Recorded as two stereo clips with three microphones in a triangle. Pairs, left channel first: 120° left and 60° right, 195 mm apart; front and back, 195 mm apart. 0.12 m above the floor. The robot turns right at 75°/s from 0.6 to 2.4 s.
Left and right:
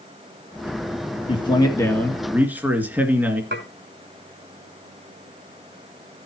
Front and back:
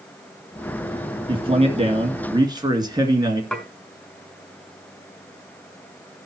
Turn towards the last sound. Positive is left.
turn(degrees=-85)